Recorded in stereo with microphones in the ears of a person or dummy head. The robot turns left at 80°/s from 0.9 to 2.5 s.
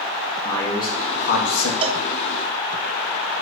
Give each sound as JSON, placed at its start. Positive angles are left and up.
{"t": 0.5, "sound": "a man speaking", "azimuth_deg": 155, "distance_m": 1.7}
{"t": 1.8, "sound": "a cowbell", "side_deg": -30, "distance_m": 0.6}